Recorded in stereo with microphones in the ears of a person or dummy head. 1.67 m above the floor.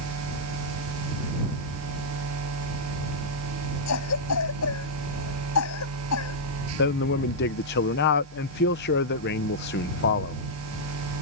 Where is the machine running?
90° right.